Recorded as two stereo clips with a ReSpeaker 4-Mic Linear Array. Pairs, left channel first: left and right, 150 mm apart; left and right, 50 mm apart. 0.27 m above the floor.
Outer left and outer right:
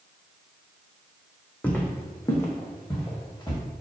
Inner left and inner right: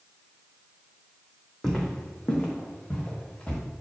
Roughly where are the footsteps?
Centre.